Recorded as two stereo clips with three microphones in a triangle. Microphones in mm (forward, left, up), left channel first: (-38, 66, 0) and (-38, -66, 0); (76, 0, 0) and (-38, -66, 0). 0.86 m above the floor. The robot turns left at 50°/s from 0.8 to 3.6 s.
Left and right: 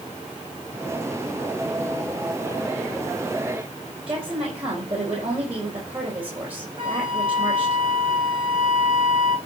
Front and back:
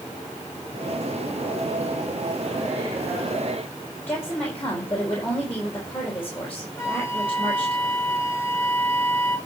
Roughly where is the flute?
Ahead right.